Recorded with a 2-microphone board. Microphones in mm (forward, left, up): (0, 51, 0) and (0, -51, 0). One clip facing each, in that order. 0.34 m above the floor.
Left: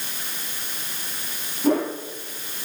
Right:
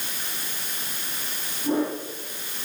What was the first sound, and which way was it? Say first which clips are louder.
A whoosh: left 3 dB; 70° left (ahead or behind).